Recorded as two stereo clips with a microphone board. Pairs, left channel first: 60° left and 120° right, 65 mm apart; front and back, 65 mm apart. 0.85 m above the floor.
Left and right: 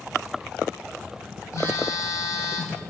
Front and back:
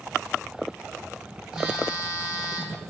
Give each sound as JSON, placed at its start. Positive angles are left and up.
{"t": 1.5, "sound": "a phone buzzing", "azimuth_deg": 100, "distance_m": 1.6}